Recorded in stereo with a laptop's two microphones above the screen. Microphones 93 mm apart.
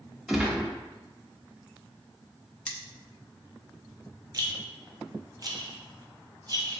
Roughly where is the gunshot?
Centre.